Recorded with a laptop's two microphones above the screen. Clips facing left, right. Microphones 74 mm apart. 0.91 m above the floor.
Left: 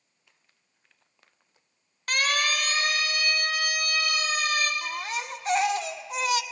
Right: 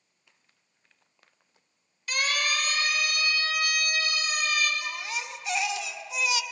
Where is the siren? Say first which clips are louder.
Left 2 dB; 50° left (ahead or behind), 3 m; by 4.7 s 40° left (ahead or behind), 4.5 m.